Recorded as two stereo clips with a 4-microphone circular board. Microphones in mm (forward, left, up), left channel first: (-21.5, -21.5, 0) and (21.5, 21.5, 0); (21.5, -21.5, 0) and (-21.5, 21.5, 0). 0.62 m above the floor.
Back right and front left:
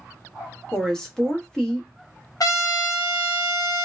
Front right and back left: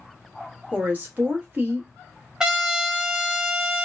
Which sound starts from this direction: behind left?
A woman speaking, at 0.7 s.